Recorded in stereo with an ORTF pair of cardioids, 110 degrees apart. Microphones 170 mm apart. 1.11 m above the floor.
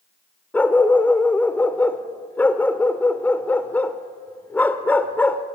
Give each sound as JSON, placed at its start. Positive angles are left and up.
{"t": 0.5, "sound": "a dog barking", "azimuth_deg": 10, "distance_m": 1.6}